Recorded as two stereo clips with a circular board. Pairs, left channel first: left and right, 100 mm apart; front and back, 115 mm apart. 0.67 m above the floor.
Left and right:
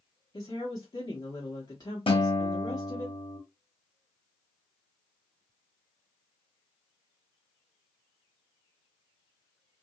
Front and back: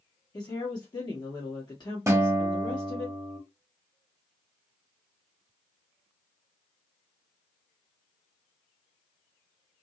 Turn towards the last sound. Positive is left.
turn(degrees=115)